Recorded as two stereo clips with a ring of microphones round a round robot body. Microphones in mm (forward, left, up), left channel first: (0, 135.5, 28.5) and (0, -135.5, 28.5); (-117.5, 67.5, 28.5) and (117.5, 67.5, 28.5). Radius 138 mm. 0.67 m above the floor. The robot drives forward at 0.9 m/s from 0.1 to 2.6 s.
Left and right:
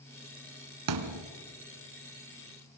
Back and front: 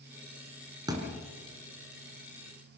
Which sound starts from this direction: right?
A thud, at 0.9 s.